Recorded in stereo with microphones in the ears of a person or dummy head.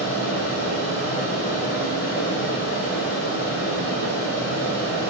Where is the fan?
55° left (ahead or behind), 5.5 m.